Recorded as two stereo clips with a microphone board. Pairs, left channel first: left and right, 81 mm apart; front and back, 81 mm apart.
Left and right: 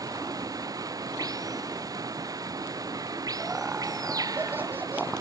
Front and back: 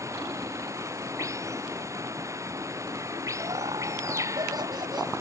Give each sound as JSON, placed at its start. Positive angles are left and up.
{"t": 0.0, "sound": "running water", "azimuth_deg": -130}
{"t": 3.4, "sound": "laughter", "azimuth_deg": -155}